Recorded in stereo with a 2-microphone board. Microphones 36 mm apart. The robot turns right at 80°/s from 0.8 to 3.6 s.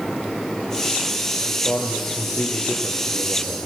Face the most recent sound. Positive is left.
turn(degrees=-165)